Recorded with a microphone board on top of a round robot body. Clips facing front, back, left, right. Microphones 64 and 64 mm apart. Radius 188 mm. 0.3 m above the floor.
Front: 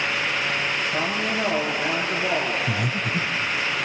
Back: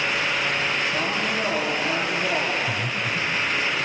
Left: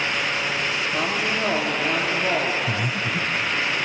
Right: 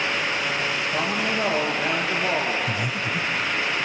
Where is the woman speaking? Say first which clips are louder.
Even, even; 75° right, 8.5 m.